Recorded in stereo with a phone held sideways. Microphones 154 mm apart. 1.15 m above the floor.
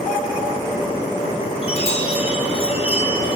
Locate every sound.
1.6 s a chime: 40° left (ahead or behind), 1.3 m